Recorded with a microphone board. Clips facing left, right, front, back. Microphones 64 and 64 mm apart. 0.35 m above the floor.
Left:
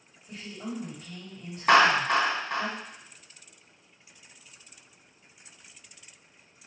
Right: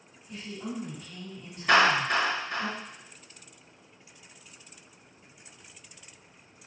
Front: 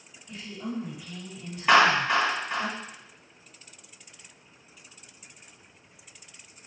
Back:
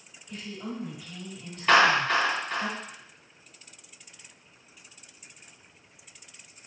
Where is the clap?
80° left, 1.9 m.